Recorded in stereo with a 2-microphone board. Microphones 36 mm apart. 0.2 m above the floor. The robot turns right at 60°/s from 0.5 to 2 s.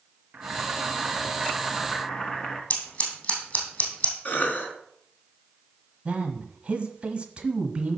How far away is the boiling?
About 1.4 m.